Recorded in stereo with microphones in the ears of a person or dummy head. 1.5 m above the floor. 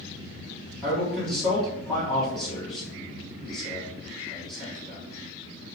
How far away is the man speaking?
About 1.5 m.